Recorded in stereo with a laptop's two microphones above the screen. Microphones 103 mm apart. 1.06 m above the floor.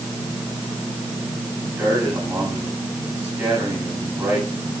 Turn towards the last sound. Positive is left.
turn(degrees=-15)  # may be behind; listen again after turning